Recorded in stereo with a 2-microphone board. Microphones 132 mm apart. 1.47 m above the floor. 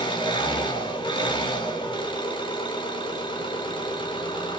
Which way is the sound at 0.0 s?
40° left (ahead or behind).